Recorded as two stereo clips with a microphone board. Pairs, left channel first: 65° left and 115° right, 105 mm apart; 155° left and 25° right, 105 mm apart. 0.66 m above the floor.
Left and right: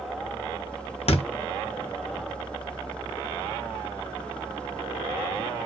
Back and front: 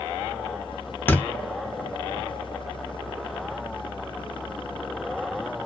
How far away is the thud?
About 0.5 m.